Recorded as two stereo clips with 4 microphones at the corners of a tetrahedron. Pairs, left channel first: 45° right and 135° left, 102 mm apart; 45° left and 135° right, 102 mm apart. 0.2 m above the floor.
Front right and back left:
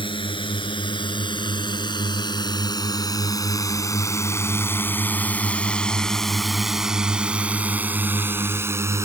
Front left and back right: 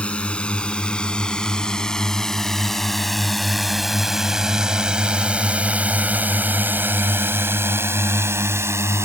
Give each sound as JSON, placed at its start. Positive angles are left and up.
{"t": 0.0, "sound": "a drone", "azimuth_deg": -30}